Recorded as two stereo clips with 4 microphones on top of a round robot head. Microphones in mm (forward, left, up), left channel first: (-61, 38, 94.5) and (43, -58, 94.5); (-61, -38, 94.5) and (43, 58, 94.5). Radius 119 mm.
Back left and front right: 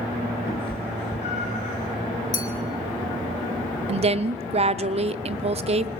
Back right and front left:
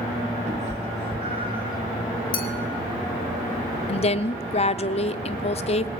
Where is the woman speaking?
90° right, 0.6 m.